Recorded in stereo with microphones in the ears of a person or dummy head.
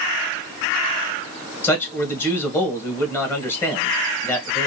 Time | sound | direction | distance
1.6 | a man speaking | 10° left (ahead or behind) | 1.6 m